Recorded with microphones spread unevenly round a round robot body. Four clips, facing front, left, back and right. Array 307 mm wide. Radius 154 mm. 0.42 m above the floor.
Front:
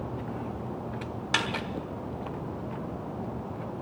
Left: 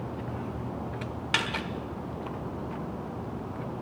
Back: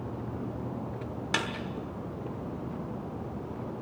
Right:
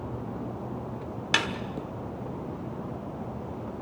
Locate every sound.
1.3 s a snare drum: 125° right, 1.5 m